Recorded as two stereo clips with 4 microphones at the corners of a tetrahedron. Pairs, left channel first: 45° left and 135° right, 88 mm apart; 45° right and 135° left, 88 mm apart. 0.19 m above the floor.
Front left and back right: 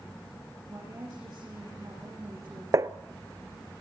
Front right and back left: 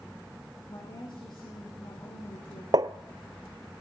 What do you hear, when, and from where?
0.7 s a woman speaking: 75° right, 5.5 m
2.7 s tapping: 175° left, 0.6 m